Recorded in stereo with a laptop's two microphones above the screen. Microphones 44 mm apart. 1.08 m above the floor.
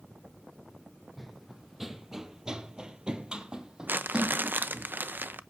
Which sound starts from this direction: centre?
Running footsteps, at 1.2 s.